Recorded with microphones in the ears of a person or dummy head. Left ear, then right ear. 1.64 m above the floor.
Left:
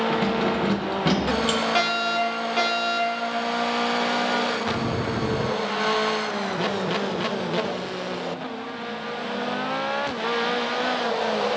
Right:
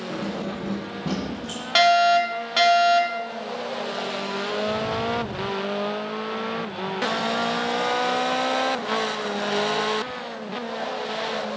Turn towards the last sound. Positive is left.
turn(degrees=-40)  # may be behind; listen again after turning